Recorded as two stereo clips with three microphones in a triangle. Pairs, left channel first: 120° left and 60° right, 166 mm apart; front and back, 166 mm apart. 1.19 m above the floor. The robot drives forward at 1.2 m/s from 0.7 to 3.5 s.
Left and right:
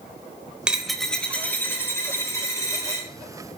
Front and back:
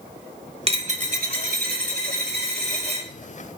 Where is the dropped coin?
140° right, 1.2 m; by 3.1 s 170° right, 3.5 m.